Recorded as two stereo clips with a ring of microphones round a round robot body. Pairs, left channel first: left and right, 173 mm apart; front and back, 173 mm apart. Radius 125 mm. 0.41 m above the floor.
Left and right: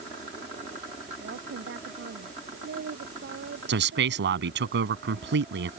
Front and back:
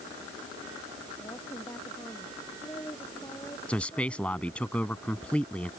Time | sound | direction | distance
1.2 | a woman speaking | 80° right | ?
3.7 | a man speaking | 85° right | ?